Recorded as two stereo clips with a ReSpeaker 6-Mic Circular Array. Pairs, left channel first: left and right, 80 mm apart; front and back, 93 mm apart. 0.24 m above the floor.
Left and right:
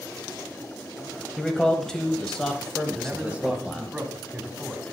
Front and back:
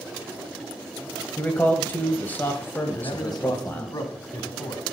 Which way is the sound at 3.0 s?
20° right.